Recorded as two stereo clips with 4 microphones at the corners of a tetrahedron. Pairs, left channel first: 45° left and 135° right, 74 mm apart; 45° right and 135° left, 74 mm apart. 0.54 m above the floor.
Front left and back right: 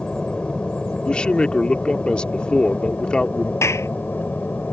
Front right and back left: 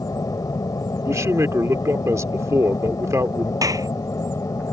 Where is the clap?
95° left.